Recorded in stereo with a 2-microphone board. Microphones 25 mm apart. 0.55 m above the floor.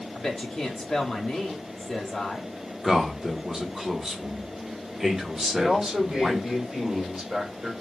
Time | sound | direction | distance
0.1 | a man speaking | 25° left (ahead or behind) | 0.7 m
2.8 | a man speaking | 25° right (ahead or behind) | 0.9 m
5.5 | a man speaking | 30° right (ahead or behind) | 2 m